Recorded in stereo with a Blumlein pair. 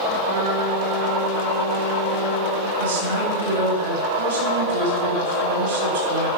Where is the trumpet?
55° right, 3.5 m.